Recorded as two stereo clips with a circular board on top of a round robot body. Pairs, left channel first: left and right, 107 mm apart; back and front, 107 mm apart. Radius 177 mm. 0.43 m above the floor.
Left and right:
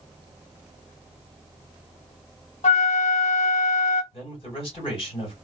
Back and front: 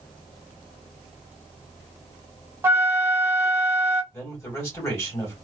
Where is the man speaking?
115° left, 2.5 m.